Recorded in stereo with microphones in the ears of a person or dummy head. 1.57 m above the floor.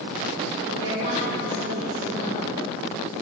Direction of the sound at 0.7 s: 80° right.